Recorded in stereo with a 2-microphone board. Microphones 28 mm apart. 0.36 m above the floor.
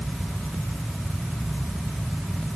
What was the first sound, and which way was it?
Only background noise.